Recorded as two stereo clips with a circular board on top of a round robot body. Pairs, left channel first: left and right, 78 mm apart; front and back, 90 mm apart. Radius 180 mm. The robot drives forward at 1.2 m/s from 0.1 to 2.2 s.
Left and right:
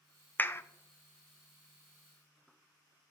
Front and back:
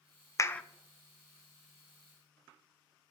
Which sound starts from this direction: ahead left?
A clap, at 0.4 s.